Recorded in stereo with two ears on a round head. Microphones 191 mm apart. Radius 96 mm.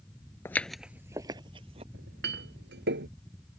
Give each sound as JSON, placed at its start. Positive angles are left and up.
{"t": 0.5, "sound": "footsteps", "side_deg": 10}
{"t": 1.9, "sound": "a clink", "side_deg": -55}